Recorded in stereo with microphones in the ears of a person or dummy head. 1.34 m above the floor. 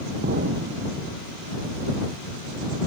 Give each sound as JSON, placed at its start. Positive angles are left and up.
{"t": 0.2, "sound": "an explosion", "side_deg": -45}